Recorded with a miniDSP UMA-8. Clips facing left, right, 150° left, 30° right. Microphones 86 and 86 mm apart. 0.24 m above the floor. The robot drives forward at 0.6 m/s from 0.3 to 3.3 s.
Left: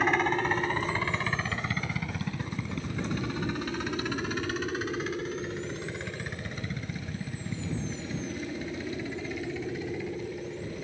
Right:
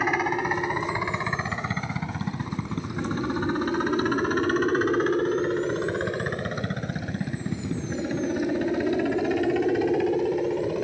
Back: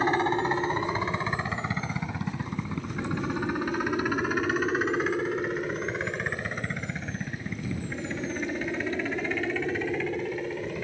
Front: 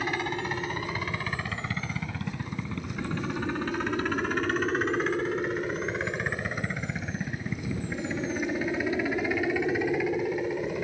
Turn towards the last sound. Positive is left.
turn(degrees=-110)